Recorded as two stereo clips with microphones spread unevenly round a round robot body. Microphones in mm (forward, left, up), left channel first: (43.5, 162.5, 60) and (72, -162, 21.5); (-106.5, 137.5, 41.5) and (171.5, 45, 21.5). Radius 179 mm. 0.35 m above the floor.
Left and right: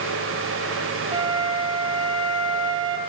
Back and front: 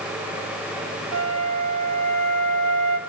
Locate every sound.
1.1 s a flute: 20° right, 1.5 m